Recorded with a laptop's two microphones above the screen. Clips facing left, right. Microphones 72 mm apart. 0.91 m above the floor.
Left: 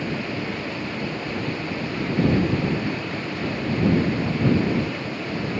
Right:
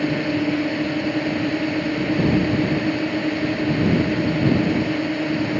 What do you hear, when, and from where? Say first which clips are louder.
0.0 s a drone: right 7 dB; 70° right (ahead or behind)